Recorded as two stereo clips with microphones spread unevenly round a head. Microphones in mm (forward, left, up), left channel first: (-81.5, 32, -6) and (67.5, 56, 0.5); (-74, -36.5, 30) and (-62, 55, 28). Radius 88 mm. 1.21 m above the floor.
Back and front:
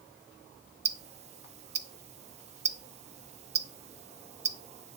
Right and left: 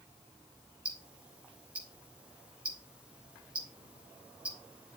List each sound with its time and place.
0.8 s ticking: straight ahead, 0.7 m